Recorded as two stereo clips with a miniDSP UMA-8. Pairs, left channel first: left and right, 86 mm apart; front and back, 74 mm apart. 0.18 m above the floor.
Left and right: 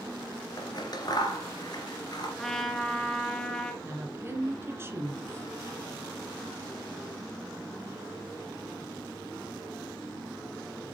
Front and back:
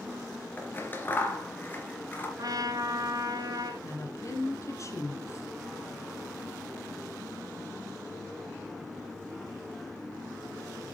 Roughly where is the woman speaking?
Ahead right.